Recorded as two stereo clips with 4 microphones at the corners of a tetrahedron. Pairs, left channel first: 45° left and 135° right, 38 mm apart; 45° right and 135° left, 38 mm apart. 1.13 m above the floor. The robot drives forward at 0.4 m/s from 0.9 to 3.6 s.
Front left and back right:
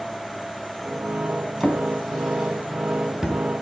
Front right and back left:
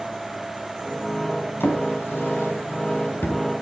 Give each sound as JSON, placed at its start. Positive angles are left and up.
{"t": 1.6, "sound": "a drawer", "azimuth_deg": -50, "distance_m": 3.5}